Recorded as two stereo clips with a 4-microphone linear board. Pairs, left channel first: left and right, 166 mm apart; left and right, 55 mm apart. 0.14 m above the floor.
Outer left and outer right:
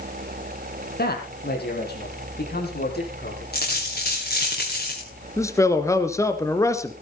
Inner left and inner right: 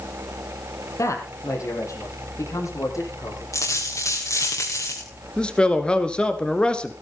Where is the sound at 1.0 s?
70° left (ahead or behind), 4.5 m; by 3.4 s 80° left, 8 m.